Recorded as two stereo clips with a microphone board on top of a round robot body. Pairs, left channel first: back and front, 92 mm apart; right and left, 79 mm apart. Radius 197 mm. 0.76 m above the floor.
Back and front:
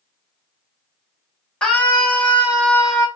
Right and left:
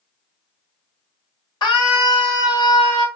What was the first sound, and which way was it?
A scream, 100° right.